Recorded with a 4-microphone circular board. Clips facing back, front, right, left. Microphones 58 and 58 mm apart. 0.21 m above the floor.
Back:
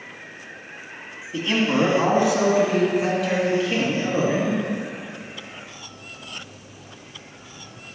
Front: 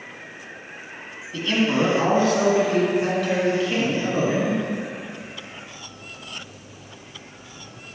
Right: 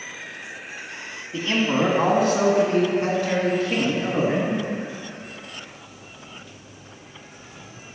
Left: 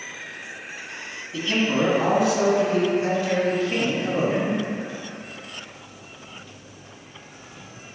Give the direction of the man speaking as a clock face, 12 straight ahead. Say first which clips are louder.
Even, right 1 dB; 4 o'clock.